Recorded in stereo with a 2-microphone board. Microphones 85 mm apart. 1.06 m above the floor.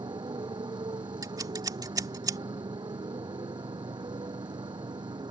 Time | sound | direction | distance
0.0 | a motorcycle | 65° right (ahead or behind) | ?
1.2 | scissors | 50° right (ahead or behind) | ?